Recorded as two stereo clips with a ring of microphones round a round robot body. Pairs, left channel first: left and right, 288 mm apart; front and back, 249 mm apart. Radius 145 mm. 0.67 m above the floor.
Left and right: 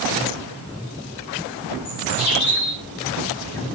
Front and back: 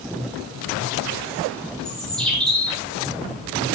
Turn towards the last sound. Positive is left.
turn(degrees=85)